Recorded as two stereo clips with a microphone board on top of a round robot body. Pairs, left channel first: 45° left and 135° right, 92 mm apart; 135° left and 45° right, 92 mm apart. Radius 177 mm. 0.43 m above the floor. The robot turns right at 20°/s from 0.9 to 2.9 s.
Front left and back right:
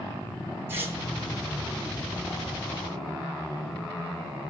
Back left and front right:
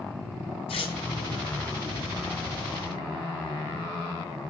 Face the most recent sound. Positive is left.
turn(degrees=-160)